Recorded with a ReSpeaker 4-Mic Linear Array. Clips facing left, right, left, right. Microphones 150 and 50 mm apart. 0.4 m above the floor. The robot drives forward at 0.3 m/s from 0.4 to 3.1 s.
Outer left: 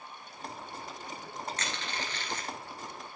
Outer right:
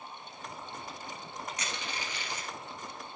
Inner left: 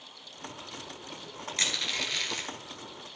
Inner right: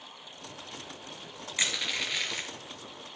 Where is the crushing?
10° right (ahead or behind), 1.5 m.